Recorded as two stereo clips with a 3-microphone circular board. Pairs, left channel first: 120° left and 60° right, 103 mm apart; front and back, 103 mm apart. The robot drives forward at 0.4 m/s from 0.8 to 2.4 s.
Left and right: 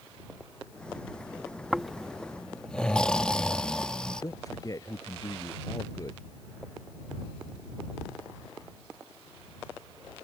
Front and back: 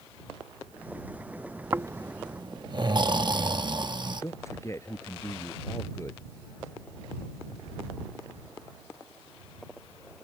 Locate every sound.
1.7 s snoring: 145° right; by 4.2 s 160° right
4.2 s a man speaking: 65° left